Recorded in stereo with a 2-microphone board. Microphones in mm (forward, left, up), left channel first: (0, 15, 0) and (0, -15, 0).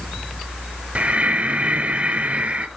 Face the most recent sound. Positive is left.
turn(degrees=-55)  # may be behind; listen again after turning